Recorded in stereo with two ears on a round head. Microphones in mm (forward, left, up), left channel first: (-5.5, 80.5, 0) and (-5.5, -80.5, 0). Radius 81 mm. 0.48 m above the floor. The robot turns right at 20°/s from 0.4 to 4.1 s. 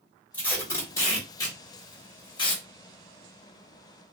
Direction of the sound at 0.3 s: 10° left (ahead or behind).